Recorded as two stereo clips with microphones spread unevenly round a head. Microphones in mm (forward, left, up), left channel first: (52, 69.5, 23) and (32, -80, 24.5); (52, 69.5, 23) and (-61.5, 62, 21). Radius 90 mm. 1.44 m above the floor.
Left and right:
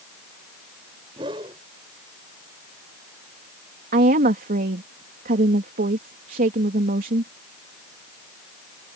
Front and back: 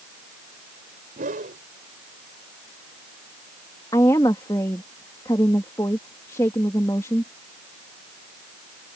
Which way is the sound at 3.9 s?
70° right.